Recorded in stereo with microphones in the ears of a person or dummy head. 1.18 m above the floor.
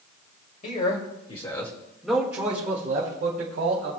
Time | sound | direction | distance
0.6 | a man speaking | 50° left (ahead or behind) | 3 m